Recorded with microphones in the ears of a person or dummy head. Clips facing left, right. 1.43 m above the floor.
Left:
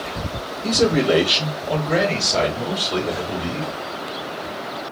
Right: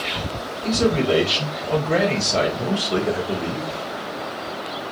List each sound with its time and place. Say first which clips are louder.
0.6 s a man speaking: left 2 dB; 30° left (ahead or behind), 1.4 m; by 3.7 s 25° right (ahead or behind), 2 m